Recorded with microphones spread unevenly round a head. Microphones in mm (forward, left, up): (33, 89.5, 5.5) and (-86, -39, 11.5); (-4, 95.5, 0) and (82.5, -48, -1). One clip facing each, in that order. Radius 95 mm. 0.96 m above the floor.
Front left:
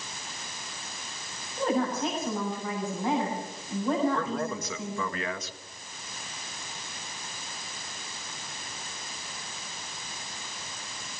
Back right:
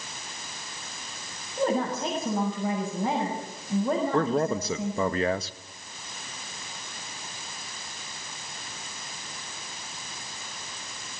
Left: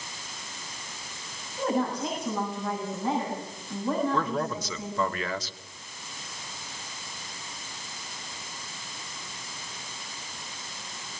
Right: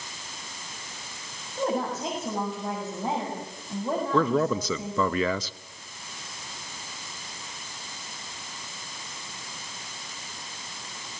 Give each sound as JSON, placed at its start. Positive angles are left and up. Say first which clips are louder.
{"t": 1.6, "sound": "a woman speaking", "louder": "back right 1 dB, even", "azimuth_deg": -130, "distance_m": 7.0}
{"t": 4.1, "sound": "a man speaking", "louder": "back right 6 dB, right 6 dB", "azimuth_deg": -70, "distance_m": 0.7}